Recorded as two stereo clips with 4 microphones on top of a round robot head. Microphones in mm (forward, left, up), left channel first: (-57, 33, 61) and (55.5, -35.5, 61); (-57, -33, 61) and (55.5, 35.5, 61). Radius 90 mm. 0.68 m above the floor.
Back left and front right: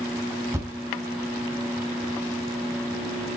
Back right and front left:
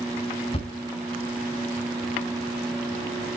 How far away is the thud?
About 2.5 m.